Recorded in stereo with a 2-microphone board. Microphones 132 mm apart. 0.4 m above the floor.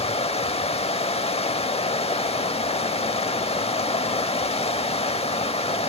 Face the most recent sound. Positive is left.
turn(degrees=50)  # may be behind; listen again after turning